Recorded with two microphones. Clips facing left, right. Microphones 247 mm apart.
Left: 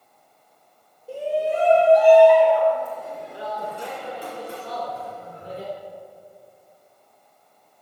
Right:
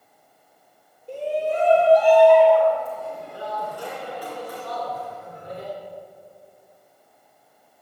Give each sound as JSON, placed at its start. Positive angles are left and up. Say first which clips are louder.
{"t": 1.1, "sound": "a shout", "louder": "left 1 dB", "side_deg": 5, "distance_m": 6.0}